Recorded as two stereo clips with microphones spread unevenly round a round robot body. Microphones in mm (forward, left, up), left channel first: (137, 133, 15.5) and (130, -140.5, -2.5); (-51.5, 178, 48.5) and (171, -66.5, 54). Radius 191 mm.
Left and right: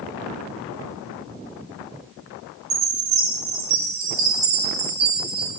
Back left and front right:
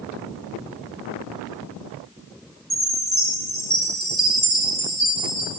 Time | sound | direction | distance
2.7 | a chime | 140° right | 6.5 m